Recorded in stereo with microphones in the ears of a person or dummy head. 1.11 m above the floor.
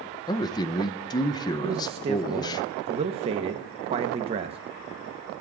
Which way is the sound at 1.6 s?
30° right (ahead or behind).